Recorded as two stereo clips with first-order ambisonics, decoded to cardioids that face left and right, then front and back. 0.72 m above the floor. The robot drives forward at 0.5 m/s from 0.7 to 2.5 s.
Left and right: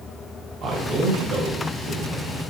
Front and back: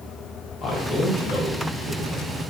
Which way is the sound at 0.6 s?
55° right.